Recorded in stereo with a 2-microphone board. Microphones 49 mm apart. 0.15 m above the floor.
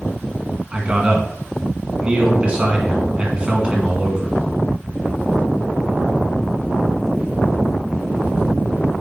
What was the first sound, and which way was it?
A man speaking, 25° right (ahead or behind).